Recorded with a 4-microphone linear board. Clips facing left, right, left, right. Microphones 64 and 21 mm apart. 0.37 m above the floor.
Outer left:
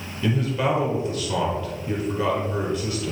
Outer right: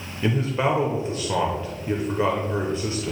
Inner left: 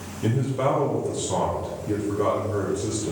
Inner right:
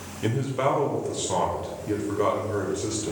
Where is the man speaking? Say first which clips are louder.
Even, inner left 1 dB; 30° right (ahead or behind), 1.0 m.